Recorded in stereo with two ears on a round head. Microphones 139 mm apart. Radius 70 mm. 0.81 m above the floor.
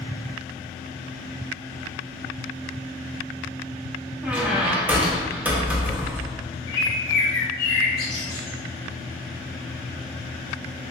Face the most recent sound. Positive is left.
turn(degrees=25)  # may be behind; listen again after turning